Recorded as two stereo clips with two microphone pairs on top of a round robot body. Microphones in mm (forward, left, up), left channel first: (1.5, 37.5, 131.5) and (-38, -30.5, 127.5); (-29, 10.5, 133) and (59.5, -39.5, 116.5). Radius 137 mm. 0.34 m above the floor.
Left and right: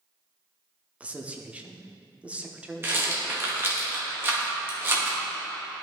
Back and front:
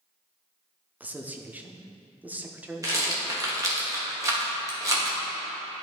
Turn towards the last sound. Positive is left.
turn(degrees=-70)